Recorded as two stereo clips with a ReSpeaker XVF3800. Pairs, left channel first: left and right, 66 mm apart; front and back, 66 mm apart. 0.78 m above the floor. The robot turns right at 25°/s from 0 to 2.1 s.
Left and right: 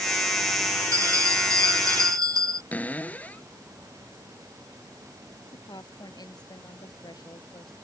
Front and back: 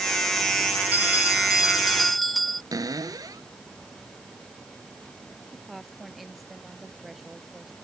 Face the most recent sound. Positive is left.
turn(degrees=90)